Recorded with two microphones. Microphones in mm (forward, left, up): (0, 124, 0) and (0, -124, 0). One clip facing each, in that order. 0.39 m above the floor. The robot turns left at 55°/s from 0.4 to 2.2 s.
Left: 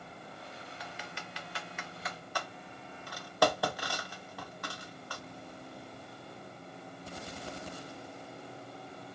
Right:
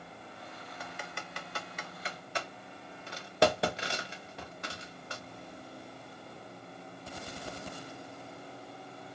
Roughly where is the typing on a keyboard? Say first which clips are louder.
Right 1 dB; right.